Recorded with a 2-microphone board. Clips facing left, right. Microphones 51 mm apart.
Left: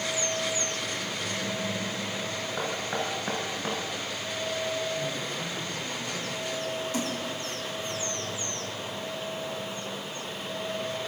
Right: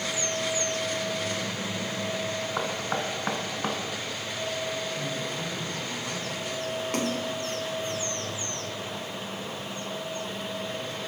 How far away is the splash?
About 2 m.